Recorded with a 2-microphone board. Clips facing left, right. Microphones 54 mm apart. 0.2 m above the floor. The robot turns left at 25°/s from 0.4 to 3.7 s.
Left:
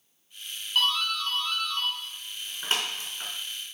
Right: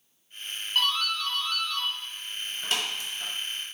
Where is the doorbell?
Centre (ahead or behind), 3 m; by 3.3 s 50° left (ahead or behind), 3 m.